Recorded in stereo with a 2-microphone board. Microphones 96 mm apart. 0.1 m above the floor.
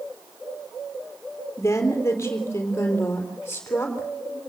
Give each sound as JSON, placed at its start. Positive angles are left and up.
{"t": 1.6, "sound": "a woman speaking", "side_deg": 30, "distance_m": 3.0}